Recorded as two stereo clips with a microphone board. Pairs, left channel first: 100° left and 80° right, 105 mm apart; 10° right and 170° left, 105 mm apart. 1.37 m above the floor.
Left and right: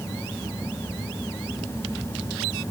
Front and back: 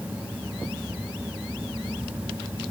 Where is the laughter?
No laughter in this recording.